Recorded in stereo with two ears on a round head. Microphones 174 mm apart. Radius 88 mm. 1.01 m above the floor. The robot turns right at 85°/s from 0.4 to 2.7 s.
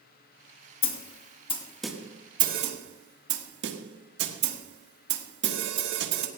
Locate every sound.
0.8 s a snare drum: 70° left (ahead or behind), 1.5 m; by 6.3 s 65° right (ahead or behind), 1.5 m